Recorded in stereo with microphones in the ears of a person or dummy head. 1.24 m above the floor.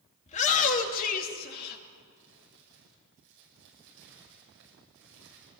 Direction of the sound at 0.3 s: 40° left (ahead or behind).